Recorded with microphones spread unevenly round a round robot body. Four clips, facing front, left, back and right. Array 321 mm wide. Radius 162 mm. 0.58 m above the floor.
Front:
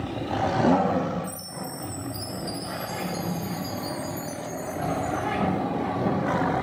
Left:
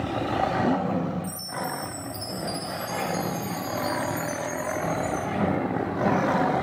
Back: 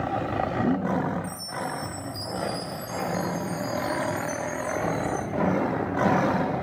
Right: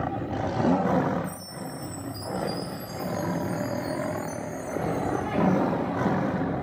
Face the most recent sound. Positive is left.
turn(degrees=25)